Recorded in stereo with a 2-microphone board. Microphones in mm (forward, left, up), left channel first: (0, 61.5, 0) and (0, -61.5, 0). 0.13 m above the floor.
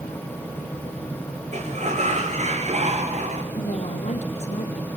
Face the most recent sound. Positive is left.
turn(degrees=60)  # may be behind; listen again after turning